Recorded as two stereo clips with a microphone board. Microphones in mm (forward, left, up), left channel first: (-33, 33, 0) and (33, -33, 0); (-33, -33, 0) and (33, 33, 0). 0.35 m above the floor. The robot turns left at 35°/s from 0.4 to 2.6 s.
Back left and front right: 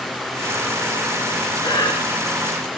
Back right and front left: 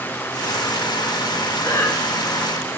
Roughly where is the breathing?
Behind.